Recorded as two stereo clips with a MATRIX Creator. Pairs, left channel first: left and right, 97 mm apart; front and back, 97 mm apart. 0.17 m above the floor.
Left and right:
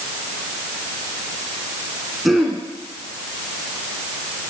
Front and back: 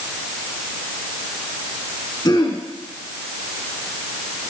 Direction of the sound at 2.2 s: Straight ahead.